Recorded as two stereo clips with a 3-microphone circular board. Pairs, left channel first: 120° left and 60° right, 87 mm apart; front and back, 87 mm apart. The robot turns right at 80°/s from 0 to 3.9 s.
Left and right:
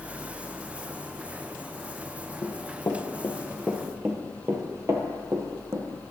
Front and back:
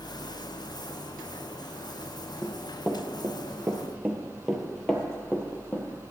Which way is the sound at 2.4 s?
75° left.